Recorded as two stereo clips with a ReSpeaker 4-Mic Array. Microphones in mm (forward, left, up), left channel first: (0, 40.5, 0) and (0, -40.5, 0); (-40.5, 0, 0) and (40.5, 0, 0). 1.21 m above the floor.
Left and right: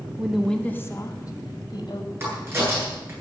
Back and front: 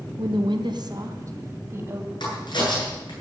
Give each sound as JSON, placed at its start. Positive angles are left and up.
{"t": 0.2, "sound": "a woman speaking", "azimuth_deg": -20, "distance_m": 1.2}
{"t": 2.2, "sound": "a crack", "azimuth_deg": -150, "distance_m": 9.5}